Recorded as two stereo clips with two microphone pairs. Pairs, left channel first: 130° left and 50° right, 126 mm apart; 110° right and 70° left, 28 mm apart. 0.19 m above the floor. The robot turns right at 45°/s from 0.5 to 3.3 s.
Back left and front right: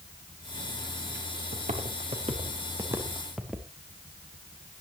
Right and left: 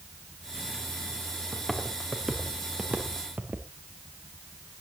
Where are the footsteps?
40° right, 3.5 m; by 3.7 s 35° left, 2.5 m.